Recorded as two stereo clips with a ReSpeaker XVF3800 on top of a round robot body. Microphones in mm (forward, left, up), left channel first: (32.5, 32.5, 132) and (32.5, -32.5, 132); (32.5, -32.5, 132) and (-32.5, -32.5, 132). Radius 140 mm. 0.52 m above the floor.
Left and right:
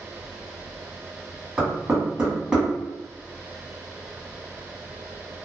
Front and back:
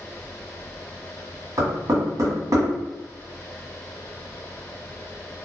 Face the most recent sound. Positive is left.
turn(degrees=-170)